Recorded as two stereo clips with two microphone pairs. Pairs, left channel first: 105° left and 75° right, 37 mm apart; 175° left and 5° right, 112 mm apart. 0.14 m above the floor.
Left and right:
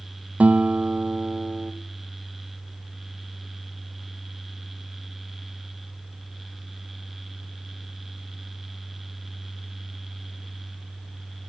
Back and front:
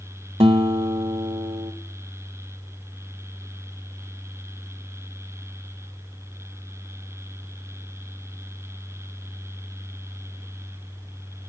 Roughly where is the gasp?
No gasp in this recording.